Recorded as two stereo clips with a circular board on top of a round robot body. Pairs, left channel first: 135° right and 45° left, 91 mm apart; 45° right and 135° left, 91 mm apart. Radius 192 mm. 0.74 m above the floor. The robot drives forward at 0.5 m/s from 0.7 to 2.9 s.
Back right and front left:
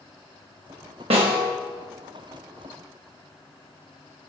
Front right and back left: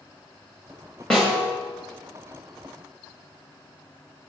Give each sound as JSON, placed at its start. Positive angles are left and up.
{"t": 1.1, "sound": "a snare drum", "azimuth_deg": 40, "distance_m": 0.7}